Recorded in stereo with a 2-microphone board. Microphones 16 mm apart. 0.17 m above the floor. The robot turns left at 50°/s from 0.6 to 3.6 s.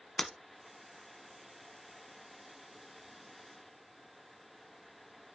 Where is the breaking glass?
40° left (ahead or behind), 0.8 m.